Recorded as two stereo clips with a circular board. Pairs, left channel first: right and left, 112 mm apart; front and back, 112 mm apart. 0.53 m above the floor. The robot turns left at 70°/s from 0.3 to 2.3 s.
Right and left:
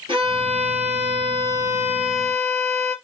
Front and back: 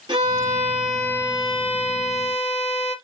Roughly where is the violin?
Behind left.